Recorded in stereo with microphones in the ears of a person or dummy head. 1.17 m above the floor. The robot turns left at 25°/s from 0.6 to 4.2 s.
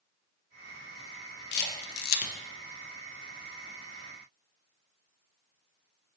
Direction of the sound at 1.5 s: 55° left (ahead or behind).